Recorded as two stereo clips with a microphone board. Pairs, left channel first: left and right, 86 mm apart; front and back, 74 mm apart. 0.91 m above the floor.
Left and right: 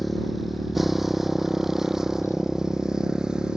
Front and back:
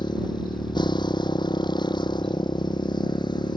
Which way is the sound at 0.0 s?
Straight ahead.